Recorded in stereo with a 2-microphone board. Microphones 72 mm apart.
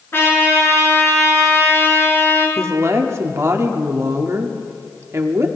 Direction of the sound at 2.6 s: 40° right (ahead or behind).